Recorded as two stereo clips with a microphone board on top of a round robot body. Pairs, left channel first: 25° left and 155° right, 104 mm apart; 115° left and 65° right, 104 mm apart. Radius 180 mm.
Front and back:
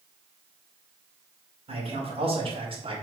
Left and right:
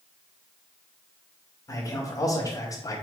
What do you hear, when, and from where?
1.7 s a man speaking: 175° left, 3 m; by 3.0 s 170° left, 1.9 m